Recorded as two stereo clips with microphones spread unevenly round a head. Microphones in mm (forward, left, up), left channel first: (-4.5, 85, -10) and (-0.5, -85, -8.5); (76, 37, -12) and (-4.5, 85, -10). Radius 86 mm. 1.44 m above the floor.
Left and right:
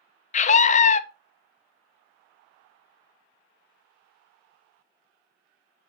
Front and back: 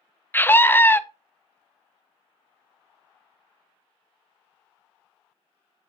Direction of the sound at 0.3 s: 40° left.